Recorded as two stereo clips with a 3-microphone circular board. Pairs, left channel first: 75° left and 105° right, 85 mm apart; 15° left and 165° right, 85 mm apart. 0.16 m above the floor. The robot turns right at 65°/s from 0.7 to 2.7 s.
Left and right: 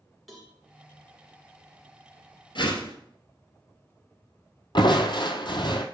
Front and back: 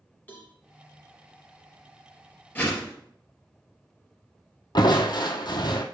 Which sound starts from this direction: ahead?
A cowbell, at 0.3 s.